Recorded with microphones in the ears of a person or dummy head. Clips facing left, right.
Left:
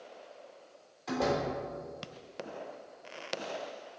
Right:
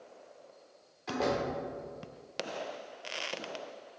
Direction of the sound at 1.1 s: Centre (ahead or behind).